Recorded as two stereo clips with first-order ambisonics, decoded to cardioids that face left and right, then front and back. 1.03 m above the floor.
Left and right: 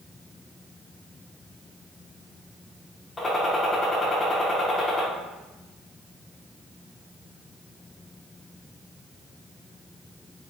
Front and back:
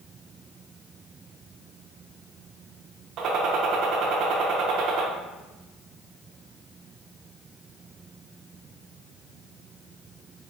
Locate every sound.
3.2 s a gunshot: 160° left, 0.6 m